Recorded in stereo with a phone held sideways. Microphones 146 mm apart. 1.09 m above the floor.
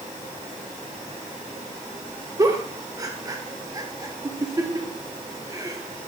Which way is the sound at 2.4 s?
25° right (ahead or behind).